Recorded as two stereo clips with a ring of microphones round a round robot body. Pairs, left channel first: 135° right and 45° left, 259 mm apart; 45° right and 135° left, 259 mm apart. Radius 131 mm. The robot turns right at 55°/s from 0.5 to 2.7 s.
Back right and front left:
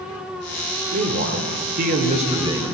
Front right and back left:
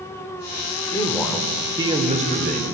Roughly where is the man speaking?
Ahead.